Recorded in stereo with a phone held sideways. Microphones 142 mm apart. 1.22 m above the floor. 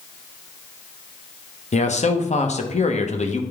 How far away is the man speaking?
About 0.9 m.